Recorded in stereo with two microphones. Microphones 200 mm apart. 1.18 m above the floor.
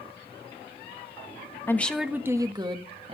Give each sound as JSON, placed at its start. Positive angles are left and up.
{"t": 1.7, "sound": "a woman speaking", "side_deg": 10, "distance_m": 1.0}